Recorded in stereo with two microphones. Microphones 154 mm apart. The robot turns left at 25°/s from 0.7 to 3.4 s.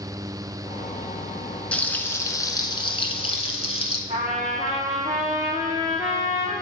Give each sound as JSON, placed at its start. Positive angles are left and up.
{"t": 1.7, "sound": "frying", "azimuth_deg": 170, "distance_m": 0.8}
{"t": 4.1, "sound": "a trumpet", "side_deg": -50, "distance_m": 3.0}